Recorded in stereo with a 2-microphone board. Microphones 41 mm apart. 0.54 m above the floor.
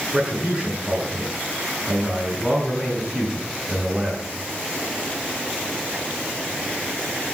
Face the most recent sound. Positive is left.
turn(degrees=-15)  # may be behind; listen again after turning